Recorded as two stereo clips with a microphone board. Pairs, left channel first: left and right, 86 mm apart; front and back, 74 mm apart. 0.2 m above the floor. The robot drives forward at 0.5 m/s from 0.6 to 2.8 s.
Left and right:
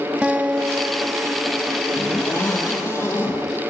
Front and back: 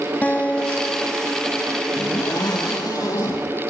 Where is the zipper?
30° left, 6 m; by 3.4 s 35° left, 6 m.